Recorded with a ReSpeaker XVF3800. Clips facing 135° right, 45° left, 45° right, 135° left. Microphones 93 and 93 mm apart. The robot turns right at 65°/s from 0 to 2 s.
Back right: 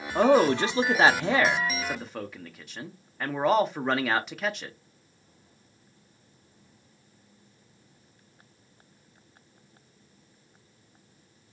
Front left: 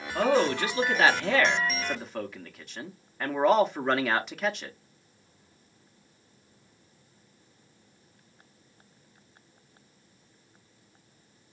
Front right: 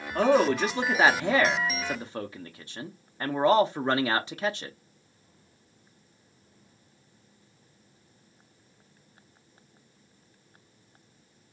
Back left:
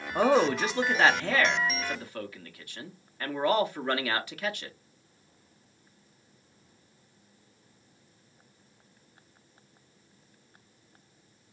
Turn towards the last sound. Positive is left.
turn(degrees=-45)